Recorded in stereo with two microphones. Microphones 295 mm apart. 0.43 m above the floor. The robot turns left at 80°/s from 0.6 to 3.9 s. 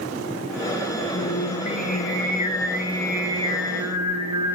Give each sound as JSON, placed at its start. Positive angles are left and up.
{"t": 1.1, "sound": "singing", "azimuth_deg": 125, "distance_m": 6.0}